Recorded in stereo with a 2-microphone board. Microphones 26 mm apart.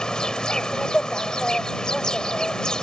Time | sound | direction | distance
0.0 | an insect | 40° left (ahead or behind) | ?